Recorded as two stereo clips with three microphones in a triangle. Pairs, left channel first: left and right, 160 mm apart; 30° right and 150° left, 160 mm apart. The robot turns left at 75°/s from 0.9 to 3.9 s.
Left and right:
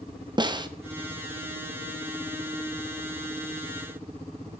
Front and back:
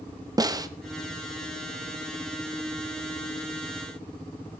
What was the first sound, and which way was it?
A snare drum, 145° right.